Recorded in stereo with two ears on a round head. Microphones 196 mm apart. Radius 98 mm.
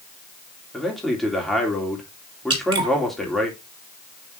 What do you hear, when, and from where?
0.7 s a man speaking: centre (ahead or behind), 3 m
2.5 s dripping: 20° right (ahead or behind), 4 m